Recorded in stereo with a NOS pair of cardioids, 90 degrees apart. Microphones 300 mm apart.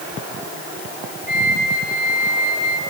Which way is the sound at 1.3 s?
40° right.